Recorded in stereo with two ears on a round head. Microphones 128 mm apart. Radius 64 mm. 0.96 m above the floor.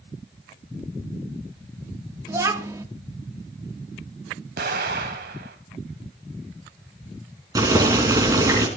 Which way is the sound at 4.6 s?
75° right (ahead or behind).